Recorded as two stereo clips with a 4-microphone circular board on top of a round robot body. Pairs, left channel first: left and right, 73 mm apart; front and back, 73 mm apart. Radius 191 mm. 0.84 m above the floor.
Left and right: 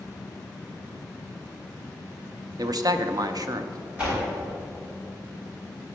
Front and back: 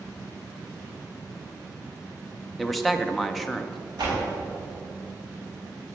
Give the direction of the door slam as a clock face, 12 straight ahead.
5 o'clock.